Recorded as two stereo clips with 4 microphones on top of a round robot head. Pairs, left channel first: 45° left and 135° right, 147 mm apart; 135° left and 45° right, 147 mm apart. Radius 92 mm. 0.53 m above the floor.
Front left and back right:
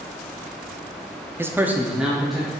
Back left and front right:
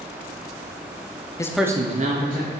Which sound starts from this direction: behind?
A man speaking, at 1.4 s.